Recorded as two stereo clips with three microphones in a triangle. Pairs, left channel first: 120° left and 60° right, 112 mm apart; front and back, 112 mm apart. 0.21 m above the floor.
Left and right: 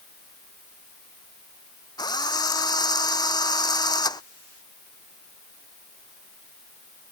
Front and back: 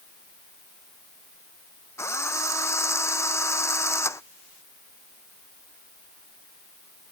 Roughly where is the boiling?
No boiling in this recording.